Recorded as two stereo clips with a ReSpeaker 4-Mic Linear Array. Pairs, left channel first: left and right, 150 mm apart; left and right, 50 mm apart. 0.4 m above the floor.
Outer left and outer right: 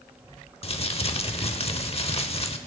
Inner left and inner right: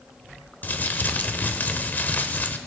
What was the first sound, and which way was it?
Crumpling, 40° left (ahead or behind).